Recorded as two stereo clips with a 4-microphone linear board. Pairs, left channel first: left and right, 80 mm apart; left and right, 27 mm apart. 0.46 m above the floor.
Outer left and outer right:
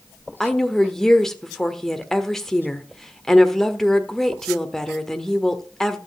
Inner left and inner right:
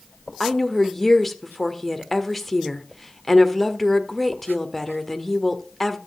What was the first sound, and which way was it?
A woman speaking, 5° left (ahead or behind).